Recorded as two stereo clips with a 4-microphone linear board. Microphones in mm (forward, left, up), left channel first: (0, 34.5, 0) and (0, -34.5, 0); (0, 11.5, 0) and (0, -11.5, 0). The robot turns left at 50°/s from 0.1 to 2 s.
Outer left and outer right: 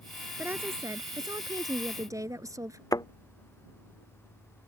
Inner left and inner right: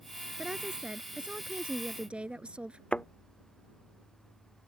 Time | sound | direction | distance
0.4 | a woman speaking | 35° right | ?
2.9 | a thud | 65° left (ahead or behind) | ?